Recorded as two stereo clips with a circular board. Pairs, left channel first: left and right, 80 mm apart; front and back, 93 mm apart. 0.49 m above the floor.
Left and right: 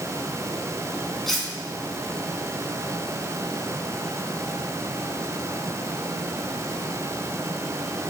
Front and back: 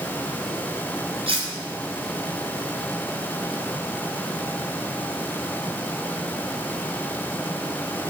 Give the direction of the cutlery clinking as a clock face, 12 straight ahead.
6 o'clock.